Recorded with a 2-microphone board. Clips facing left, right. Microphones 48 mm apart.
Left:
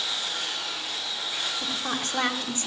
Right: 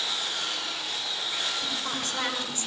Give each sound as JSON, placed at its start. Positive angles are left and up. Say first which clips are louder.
{"t": 1.6, "sound": "a woman speaking", "louder": "left 2 dB", "side_deg": 40, "distance_m": 2.5}